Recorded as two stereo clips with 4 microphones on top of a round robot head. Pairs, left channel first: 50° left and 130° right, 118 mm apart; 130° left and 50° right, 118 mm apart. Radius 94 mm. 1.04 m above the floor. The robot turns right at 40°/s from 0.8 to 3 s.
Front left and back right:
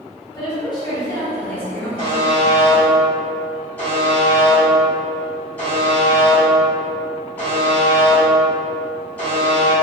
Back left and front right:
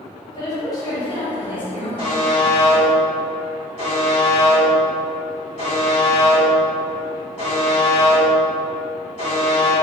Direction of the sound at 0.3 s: 85° left.